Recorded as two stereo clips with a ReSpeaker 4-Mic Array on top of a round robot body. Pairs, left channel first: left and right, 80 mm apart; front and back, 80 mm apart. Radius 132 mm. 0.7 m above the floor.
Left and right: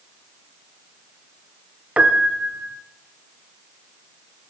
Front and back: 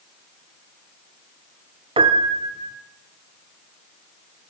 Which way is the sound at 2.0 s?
170° right.